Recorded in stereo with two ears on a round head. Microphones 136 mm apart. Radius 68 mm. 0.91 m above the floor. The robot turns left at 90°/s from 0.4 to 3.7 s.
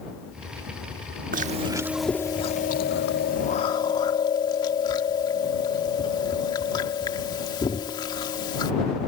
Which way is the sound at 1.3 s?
115° right.